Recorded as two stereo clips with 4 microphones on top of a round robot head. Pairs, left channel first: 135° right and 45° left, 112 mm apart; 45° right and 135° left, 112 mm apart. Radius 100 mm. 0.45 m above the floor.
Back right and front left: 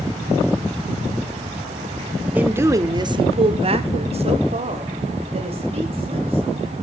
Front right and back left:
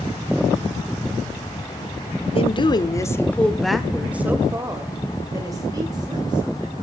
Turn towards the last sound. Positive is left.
turn(degrees=80)